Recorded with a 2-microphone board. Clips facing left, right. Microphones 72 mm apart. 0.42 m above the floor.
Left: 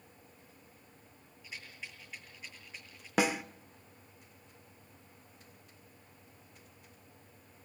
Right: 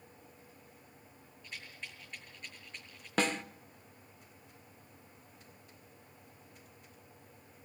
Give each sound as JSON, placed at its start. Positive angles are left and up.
{"t": 1.4, "sound": "a rattle", "side_deg": 5, "distance_m": 8.0}
{"t": 3.2, "sound": "a snare drum", "side_deg": 10, "distance_m": 0.7}